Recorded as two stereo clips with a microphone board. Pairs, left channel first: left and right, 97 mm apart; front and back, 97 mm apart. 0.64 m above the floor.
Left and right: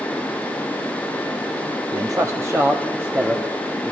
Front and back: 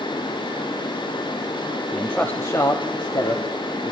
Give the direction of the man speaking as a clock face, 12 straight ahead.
3 o'clock.